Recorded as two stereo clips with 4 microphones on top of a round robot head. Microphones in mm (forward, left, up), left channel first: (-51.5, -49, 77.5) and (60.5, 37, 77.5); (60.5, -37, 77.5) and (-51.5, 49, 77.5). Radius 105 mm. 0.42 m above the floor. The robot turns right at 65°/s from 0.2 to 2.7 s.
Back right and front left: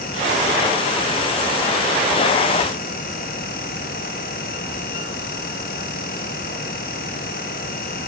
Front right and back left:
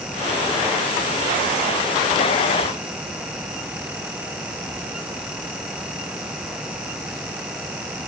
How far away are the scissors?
I don't hear scissors.